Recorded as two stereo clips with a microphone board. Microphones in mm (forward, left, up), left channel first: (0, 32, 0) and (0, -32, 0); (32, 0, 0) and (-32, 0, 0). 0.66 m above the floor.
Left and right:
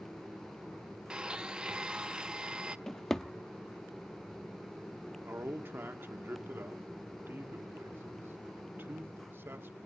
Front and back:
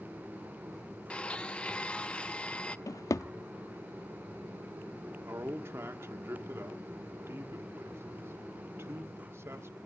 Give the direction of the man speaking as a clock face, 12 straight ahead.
5 o'clock.